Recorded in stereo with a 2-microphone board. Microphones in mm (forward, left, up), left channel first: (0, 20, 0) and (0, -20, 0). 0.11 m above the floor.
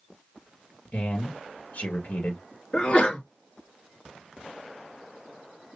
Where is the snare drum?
I don't hear a snare drum.